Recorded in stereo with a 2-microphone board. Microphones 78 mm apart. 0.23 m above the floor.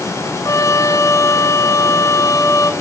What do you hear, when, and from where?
0.5 s a trumpet: 45° left (ahead or behind), 0.8 m